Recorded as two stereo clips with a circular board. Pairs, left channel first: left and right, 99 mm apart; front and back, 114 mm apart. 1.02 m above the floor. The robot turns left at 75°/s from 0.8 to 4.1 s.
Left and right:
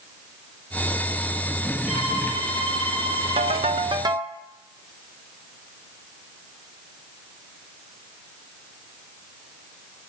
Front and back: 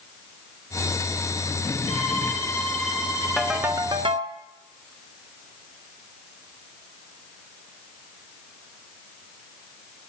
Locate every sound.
1.9 s a violin: 15° right, 8 m; by 3.7 s 155° right, 8 m
3.4 s a ringtone: 85° right, 0.6 m; by 4.3 s 145° right, 0.6 m